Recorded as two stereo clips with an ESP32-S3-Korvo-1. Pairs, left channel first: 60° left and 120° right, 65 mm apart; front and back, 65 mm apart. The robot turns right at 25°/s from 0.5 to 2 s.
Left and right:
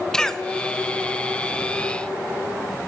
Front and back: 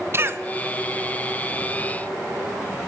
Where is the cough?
135° left, 1.3 m.